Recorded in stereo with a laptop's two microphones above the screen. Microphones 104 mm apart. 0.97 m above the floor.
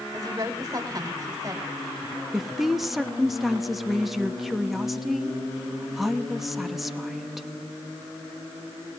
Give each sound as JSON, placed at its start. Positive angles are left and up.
{"t": 0.1, "sound": "a woman speaking", "side_deg": -30, "distance_m": 4.0}
{"t": 2.3, "sound": "a woman speaking", "side_deg": 0, "distance_m": 1.0}